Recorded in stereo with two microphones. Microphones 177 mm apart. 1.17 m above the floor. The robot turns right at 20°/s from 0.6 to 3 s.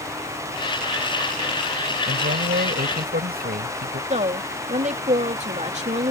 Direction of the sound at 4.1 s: 40° right (ahead or behind).